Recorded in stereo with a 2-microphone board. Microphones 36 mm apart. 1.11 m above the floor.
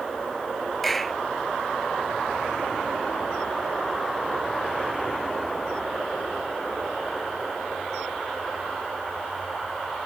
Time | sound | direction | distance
0.8 | a clap | 5° left (ahead or behind) | ?